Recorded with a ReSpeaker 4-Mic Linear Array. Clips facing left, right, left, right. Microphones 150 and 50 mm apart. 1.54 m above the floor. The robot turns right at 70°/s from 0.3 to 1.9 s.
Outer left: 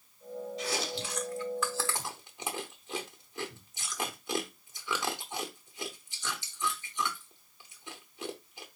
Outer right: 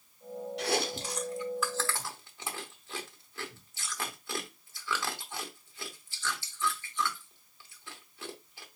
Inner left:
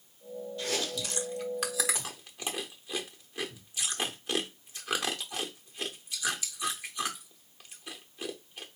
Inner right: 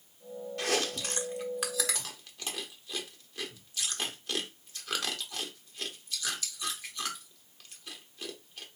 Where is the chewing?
75° right (ahead or behind), 0.9 m; by 8.7 s 20° left (ahead or behind), 0.9 m.